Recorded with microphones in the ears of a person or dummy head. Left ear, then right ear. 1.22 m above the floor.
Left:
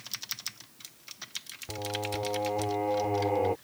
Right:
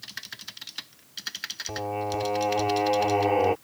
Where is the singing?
75° right (ahead or behind).